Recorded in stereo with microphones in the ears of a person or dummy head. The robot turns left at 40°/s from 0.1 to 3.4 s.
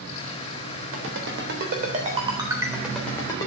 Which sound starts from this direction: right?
A ringtone, at 0.9 s.